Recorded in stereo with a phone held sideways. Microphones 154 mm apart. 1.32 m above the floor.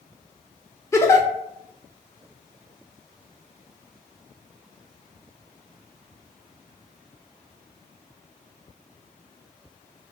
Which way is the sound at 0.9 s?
20° left (ahead or behind).